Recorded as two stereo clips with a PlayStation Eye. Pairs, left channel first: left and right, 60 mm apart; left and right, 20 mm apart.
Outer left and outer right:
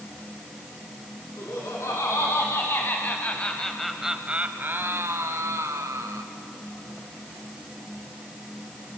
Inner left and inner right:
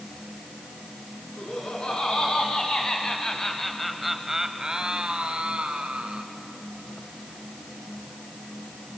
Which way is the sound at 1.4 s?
60° left (ahead or behind).